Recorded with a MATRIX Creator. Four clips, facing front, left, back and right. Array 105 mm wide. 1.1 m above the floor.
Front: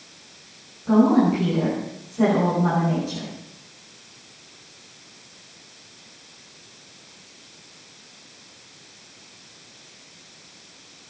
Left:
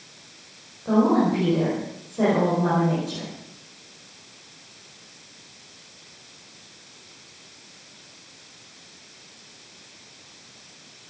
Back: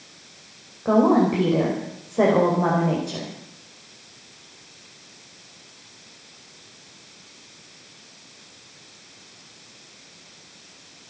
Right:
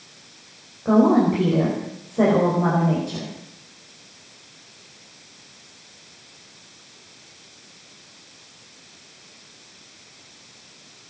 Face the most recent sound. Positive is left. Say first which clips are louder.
# right 3 dB, even
turn(degrees=-155)